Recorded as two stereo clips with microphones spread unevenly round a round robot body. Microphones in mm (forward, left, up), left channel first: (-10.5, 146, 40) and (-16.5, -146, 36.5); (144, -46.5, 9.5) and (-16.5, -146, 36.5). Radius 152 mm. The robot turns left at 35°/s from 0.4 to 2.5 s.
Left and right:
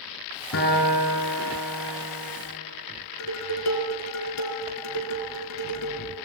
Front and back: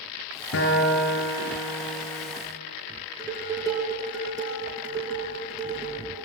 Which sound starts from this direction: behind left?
Dishes clattering, at 3.2 s.